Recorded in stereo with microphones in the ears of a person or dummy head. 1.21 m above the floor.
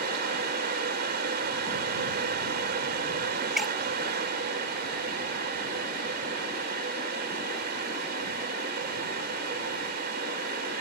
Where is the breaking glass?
Centre (ahead or behind).